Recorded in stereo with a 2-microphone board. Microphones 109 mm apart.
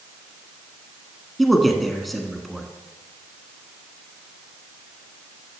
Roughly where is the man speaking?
Centre.